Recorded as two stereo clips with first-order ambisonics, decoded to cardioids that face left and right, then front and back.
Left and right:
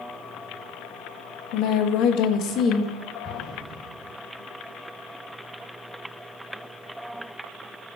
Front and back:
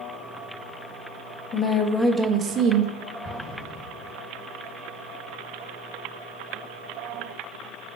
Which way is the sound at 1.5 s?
65° left.